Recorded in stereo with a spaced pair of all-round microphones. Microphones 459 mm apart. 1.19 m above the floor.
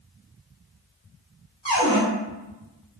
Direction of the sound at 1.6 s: 65° left (ahead or behind).